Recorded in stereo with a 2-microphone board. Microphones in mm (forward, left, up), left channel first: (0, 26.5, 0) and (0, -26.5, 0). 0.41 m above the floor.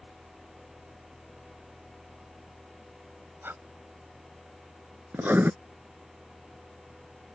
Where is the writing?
35° right (ahead or behind).